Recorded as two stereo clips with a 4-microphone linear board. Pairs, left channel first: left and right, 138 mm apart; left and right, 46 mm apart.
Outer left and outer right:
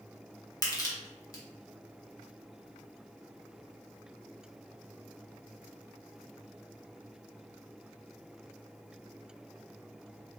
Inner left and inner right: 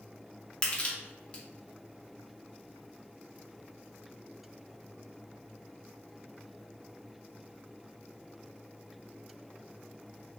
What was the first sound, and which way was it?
Crushing, 25° left (ahead or behind).